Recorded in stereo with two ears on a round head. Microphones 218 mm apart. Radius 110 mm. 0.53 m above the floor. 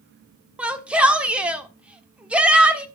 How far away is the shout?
About 1.2 m.